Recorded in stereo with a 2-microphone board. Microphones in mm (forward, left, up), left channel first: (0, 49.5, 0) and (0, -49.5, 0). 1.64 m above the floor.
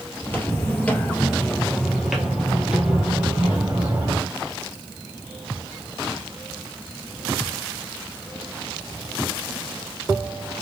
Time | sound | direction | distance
0.2 | footsteps | 20° left (ahead or behind) | 1.7 m